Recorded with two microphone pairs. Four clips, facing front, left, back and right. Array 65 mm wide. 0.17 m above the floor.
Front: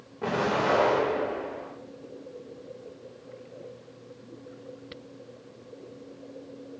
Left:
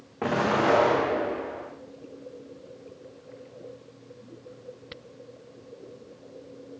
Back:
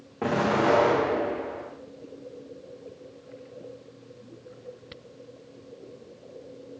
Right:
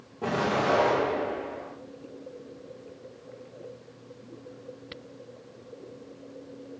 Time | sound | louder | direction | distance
0.2 | an explosion | left 3 dB, back 3 dB | 110° left | 6.5 m